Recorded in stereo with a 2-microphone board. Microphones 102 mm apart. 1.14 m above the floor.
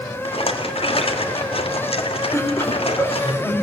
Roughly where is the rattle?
Left.